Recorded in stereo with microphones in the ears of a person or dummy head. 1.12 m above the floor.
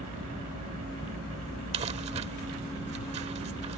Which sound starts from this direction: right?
Crumpling, at 1.7 s.